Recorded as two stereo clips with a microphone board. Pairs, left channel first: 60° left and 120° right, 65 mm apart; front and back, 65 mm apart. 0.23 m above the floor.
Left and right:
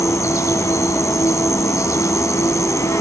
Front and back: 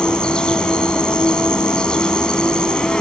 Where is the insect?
75° left, 1.5 m.